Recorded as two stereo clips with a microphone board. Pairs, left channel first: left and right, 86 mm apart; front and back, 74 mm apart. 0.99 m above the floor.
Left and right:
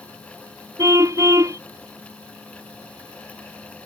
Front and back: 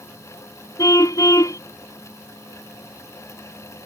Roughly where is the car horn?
Ahead right.